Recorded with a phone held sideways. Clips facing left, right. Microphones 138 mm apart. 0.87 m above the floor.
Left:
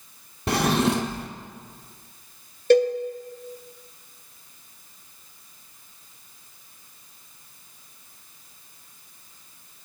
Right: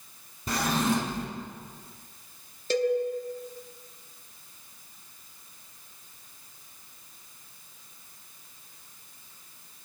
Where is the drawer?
70° left (ahead or behind), 0.8 m.